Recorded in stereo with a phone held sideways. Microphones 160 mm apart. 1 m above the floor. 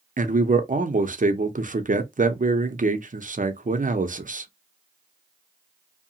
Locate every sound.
0.2 s a man speaking: 55° right (ahead or behind), 0.6 m